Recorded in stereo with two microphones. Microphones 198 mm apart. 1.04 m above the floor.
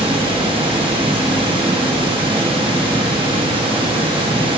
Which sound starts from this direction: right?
Running water, at 0.0 s.